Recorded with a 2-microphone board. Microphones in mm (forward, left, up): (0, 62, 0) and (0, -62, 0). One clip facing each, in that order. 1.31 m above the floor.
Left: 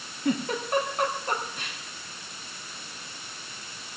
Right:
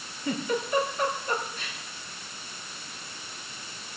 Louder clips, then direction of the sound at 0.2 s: Left 2 dB; 70° left (ahead or behind).